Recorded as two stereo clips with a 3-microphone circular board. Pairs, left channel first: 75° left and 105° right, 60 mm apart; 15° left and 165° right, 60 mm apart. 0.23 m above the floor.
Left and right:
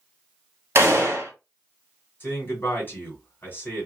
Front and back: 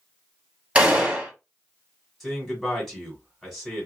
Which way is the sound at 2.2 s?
105° left.